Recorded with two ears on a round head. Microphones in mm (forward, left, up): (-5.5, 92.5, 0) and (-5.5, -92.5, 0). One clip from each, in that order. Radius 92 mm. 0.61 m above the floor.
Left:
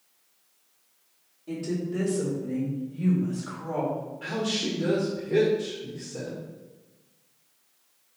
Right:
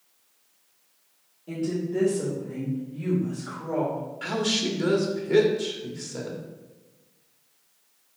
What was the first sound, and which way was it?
A woman speaking, 5° left (ahead or behind).